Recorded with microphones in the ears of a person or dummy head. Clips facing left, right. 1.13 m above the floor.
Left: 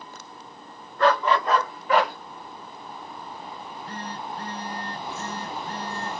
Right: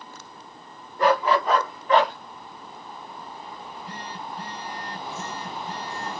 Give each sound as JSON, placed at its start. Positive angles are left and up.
{"t": 1.0, "sound": "a dog barking", "side_deg": -10, "distance_m": 1.9}
{"t": 3.6, "sound": "a phone buzzing", "side_deg": -5, "distance_m": 2.5}